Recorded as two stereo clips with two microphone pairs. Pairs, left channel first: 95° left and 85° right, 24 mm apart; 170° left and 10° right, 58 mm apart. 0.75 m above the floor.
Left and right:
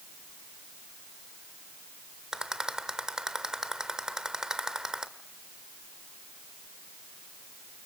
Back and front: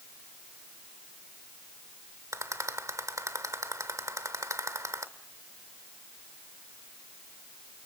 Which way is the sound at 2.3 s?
25° right.